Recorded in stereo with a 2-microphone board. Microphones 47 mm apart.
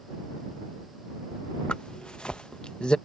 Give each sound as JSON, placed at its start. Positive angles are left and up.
{"t": 1.7, "sound": "a zipper", "side_deg": 20}